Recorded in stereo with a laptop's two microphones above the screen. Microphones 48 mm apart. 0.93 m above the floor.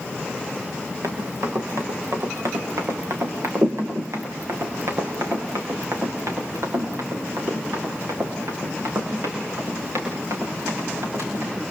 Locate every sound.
1.0 s running footsteps: 70° right (ahead or behind), 5.5 m